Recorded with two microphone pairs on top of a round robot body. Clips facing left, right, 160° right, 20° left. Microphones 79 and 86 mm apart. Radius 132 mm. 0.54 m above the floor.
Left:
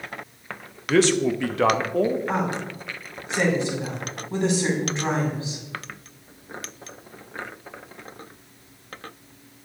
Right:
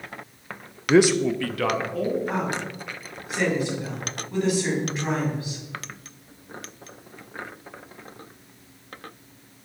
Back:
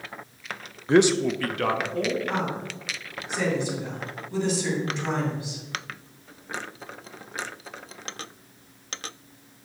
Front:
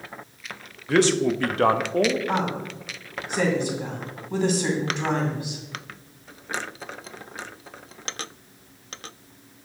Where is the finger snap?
No finger snap in this recording.